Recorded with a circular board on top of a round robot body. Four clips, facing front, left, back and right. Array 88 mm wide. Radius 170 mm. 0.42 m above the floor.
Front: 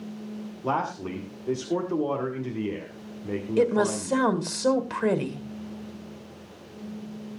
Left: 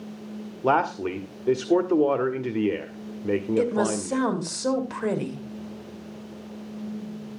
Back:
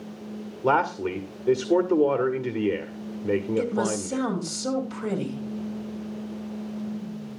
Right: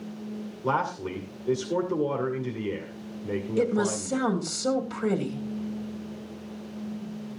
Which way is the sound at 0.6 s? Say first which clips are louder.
Left 5 dB, back 5 dB; 120° left.